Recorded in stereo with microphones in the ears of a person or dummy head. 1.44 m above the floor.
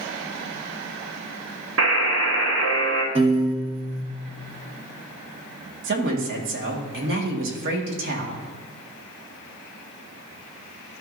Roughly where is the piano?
Right.